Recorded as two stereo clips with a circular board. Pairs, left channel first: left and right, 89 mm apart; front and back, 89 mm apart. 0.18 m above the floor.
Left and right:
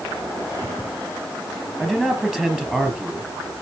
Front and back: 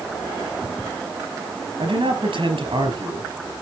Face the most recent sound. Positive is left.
turn(degrees=-170)